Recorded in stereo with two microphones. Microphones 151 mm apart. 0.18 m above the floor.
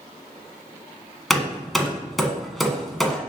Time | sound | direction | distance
1.3 | hammering | centre (ahead or behind) | 1.1 m